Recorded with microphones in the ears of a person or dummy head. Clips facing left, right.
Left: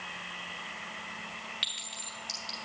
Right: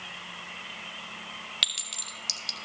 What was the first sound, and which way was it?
A clink, 55° right (ahead or behind).